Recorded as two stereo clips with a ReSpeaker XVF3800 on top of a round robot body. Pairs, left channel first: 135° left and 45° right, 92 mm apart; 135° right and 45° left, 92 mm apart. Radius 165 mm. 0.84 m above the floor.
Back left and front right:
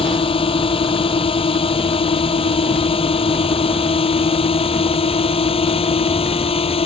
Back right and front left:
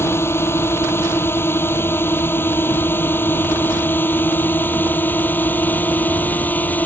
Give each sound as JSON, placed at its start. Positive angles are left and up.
{"t": 0.0, "sound": "a drone", "azimuth_deg": 160}